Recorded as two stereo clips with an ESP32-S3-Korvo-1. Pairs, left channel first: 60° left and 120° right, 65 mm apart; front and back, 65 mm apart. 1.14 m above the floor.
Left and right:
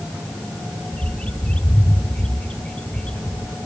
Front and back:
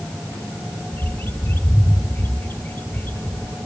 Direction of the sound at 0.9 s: Straight ahead.